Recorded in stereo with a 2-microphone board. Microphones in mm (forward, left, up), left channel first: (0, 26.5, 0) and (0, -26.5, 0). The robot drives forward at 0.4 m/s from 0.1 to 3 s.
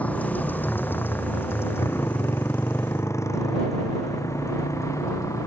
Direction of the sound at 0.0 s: 30° left (ahead or behind).